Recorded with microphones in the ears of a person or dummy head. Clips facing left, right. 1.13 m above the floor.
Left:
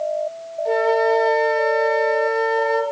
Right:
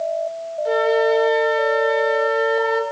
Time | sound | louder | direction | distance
0.7 | a flute | even | 5° right (ahead or behind) | 0.6 m